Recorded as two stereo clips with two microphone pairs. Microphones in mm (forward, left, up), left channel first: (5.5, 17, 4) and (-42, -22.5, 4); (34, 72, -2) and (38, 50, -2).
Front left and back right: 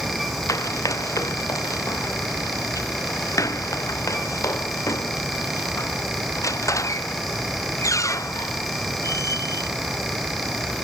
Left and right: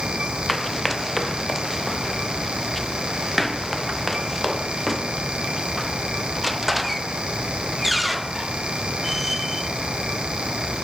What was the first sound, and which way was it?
Running footsteps, 15° left.